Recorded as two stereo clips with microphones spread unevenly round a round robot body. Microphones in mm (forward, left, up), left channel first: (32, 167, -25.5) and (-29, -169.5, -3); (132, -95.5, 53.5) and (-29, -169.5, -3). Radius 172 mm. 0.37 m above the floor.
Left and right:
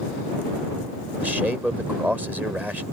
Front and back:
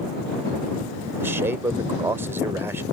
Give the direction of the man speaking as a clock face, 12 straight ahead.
6 o'clock.